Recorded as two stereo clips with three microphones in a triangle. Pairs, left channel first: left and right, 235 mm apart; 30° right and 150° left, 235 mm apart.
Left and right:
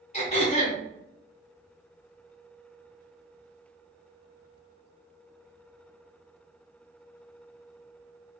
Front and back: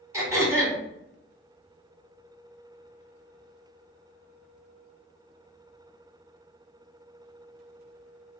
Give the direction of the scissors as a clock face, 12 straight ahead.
I don't hear scissors.